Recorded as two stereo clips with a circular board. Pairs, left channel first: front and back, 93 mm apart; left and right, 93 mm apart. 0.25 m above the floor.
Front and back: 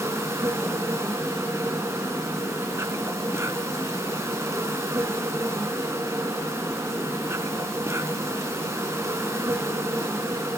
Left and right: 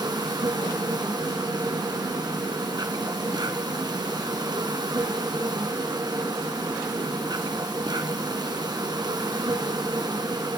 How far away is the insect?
About 1.8 m.